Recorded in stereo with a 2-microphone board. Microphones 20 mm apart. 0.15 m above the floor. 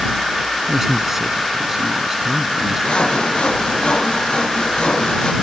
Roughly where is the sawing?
Left.